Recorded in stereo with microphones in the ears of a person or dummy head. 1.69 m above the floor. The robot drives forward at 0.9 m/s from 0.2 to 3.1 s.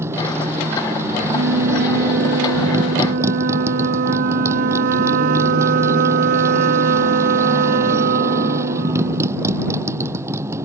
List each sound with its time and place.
0.0 s a motorcycle: 15° right (ahead or behind)
1.3 s a flute: 80° right; by 9.9 s 60° right (ahead or behind)